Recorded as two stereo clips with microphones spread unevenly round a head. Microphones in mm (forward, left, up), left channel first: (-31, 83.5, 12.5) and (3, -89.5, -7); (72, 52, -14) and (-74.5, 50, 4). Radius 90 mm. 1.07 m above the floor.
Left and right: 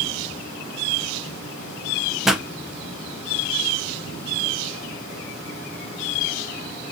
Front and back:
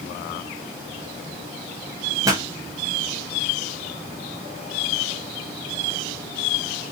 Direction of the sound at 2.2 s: 145° right.